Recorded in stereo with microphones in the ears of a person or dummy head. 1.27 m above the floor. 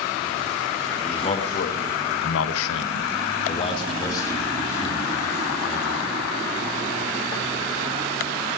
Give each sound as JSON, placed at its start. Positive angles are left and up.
{"t": 1.0, "sound": "a man speaking", "side_deg": 30, "distance_m": 2.5}